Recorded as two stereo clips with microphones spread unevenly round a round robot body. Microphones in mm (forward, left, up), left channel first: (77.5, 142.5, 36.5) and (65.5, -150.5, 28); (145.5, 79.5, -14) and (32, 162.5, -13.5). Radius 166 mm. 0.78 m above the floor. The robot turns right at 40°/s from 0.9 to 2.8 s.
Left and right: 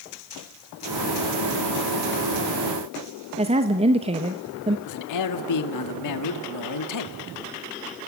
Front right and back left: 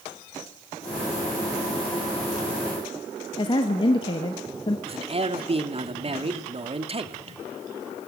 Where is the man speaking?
100° left, 1.8 m.